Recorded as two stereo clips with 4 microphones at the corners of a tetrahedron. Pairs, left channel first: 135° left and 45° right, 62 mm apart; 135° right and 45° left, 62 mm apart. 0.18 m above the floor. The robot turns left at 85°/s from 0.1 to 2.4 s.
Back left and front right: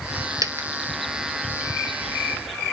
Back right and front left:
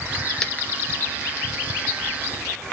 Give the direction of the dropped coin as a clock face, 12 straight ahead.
2 o'clock.